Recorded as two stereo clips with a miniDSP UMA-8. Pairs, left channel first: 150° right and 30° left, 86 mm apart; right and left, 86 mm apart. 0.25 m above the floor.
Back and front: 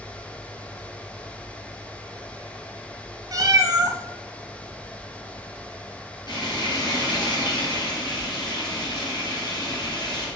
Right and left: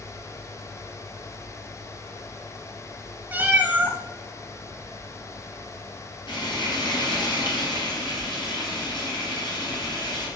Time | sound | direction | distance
3.3 | a cat meowing | 30° left | 0.8 m
6.3 | frying | 115° right | 3.5 m